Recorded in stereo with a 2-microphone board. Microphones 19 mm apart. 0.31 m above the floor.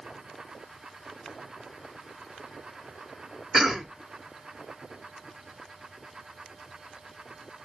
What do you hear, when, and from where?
3.5 s a cough: 20° right (ahead or behind), 0.9 m